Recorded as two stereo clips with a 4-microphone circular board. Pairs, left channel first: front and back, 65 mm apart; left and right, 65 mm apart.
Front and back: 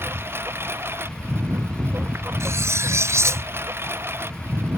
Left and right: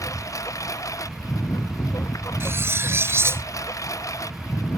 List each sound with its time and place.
0.0 s a lawn mower: 125° left
2.4 s cutlery clinking: 140° right